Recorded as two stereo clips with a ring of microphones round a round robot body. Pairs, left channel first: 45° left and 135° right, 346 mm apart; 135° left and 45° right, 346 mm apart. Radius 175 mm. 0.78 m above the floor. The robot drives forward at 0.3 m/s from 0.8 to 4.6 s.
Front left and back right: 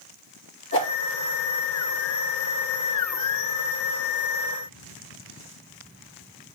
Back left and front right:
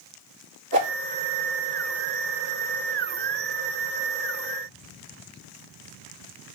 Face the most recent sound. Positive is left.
turn(degrees=-80)